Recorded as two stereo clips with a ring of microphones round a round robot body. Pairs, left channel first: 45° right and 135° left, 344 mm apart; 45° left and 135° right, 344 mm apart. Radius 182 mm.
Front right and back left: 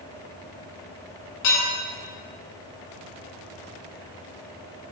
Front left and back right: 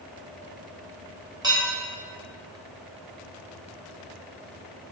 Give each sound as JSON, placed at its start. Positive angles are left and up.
{"t": 1.4, "sound": "dishes clattering", "azimuth_deg": -55, "distance_m": 1.9}